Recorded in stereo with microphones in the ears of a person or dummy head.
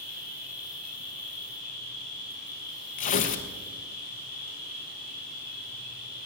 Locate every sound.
0.0 s an insect: 45° right (ahead or behind), 5.5 m
3.0 s tearing paper: 40° left (ahead or behind), 0.9 m